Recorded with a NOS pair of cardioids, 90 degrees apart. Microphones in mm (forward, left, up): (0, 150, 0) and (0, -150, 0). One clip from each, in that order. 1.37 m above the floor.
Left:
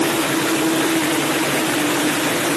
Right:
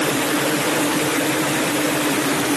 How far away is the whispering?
No whispering in this recording.